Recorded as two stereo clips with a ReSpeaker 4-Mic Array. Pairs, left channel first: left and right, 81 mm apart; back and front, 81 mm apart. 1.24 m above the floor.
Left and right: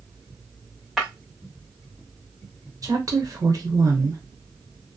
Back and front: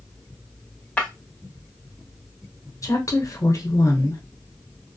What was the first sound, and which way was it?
Breaking glass, 165° right.